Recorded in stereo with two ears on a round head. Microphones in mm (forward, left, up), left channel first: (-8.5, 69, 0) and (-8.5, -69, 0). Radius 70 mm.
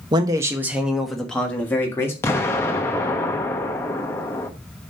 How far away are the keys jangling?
No keys jangling in this recording.